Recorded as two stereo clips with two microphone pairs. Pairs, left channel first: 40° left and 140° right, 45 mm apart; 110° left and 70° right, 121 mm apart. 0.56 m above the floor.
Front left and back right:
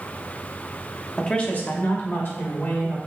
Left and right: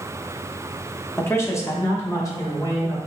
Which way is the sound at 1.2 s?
70° left.